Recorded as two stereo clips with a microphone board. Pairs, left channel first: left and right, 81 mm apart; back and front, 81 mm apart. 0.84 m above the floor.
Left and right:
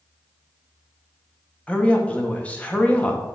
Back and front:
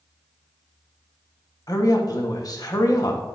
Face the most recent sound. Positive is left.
turn(degrees=160)